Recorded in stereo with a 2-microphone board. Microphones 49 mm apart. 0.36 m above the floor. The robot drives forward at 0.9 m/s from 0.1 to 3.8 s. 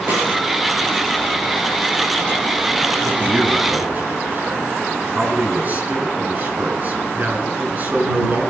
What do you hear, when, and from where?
0.1 s a snare drum: 50° right (ahead or behind), 9.5 m; by 0.3 s 55° right (ahead or behind), 9.5 m
3.0 s a man speaking: 35° right (ahead or behind), 5 m; by 8.5 s 40° right (ahead or behind), 4.5 m